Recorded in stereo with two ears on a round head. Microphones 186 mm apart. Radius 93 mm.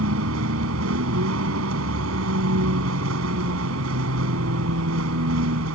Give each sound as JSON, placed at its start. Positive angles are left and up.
{"t": 0.0, "sound": "a vehicle", "side_deg": -70}